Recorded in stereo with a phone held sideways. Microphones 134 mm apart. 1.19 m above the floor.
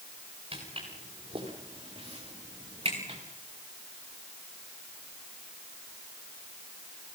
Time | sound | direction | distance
0.5 | footsteps | 40° right (ahead or behind) | 8.5 m